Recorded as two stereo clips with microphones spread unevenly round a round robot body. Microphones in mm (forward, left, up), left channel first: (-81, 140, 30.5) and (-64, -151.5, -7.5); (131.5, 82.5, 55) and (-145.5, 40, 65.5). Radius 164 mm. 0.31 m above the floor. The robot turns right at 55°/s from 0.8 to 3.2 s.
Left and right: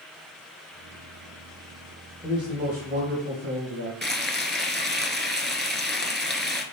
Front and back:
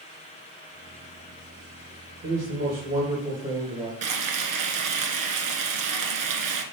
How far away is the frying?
About 1.3 m.